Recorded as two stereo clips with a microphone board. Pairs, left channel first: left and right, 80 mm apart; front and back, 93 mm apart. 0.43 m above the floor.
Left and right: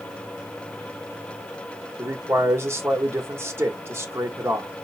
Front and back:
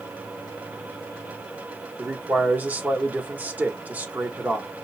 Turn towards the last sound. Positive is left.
turn(degrees=-120)